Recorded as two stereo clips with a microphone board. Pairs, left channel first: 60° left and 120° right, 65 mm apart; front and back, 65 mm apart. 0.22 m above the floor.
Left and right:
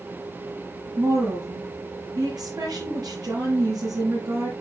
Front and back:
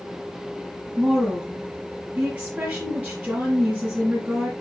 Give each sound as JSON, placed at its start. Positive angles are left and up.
{"t": 1.0, "sound": "a woman speaking", "azimuth_deg": -105, "distance_m": 5.0}